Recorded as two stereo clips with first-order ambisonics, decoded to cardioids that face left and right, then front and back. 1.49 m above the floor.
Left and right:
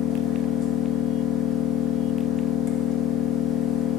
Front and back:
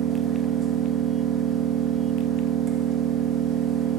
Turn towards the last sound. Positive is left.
turn(degrees=120)